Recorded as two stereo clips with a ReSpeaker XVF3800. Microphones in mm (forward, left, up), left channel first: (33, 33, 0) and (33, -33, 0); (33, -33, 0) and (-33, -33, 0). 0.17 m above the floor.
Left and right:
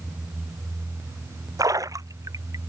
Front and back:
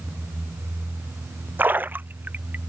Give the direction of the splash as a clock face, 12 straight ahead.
4 o'clock.